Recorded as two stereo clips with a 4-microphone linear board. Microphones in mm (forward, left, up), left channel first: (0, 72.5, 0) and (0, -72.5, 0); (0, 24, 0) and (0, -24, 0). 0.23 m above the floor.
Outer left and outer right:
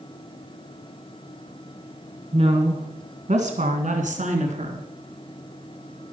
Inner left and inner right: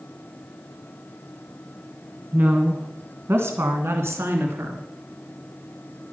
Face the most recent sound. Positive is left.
turn(degrees=-55)  # may be behind; listen again after turning